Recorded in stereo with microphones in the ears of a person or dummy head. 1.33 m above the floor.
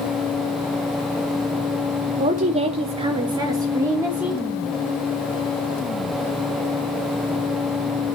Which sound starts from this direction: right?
A woman speaking, at 2.2 s.